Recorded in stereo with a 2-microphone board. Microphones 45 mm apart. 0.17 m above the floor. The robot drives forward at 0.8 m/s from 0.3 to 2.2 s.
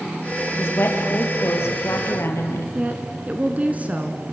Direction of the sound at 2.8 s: 35° right (ahead or behind).